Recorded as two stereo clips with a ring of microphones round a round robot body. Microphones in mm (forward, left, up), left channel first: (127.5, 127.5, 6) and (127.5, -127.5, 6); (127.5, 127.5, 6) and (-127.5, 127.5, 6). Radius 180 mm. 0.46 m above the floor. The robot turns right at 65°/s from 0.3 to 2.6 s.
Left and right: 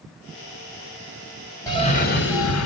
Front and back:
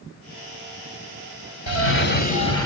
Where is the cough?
15° left, 2 m; by 2.7 s 75° left, 2 m.